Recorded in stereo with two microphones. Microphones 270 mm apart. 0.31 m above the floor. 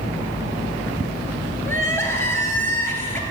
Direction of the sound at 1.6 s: 10° left (ahead or behind).